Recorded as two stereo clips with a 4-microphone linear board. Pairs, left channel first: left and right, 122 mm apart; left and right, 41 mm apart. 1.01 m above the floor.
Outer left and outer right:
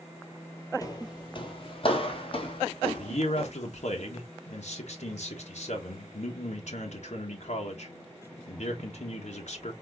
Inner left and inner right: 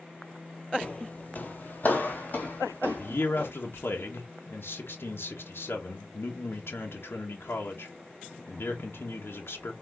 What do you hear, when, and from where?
0.8 s footsteps: 30° left (ahead or behind), 1.2 m; by 3.5 s 45° left (ahead or behind), 3 m
3.0 s a man speaking: 70° left (ahead or behind), 1.2 m